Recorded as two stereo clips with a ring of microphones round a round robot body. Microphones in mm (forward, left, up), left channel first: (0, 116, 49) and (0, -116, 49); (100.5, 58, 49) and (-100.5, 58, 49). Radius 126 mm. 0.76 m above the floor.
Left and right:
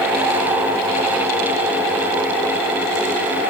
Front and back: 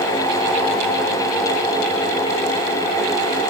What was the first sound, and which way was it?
Only background noise.